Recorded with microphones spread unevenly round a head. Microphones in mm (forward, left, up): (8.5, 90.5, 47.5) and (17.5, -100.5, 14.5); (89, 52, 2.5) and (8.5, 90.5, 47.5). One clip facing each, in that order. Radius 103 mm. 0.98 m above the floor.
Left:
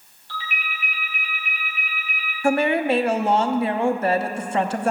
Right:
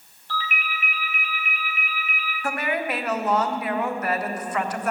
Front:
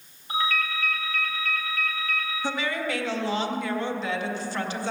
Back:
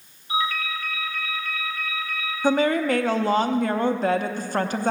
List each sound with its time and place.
0.3 s a ringtone: 40° right, 4 m
2.4 s a woman speaking: 125° left, 0.7 m